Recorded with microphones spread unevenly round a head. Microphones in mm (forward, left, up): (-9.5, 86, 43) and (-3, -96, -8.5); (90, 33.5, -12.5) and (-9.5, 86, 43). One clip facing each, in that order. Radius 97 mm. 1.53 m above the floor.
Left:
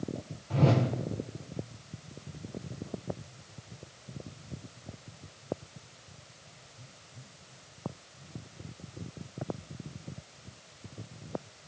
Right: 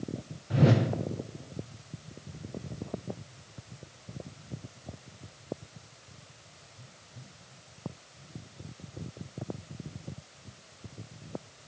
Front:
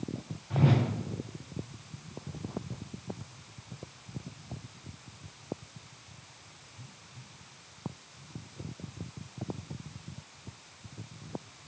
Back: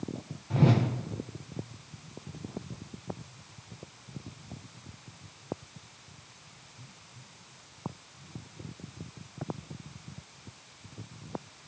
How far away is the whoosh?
About 0.8 m.